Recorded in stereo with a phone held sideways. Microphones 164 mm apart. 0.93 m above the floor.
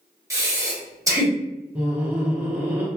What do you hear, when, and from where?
0.3 s breathing: 20° right (ahead or behind), 0.8 m
1.8 s laughter: 10° right (ahead or behind), 0.5 m